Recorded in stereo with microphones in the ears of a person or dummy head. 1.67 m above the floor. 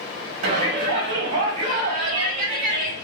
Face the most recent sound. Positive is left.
turn(degrees=-45)  # may be behind; listen again after turning